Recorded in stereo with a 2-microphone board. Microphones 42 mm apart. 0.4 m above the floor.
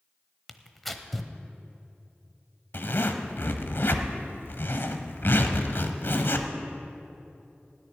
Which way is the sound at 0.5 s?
5° left (ahead or behind).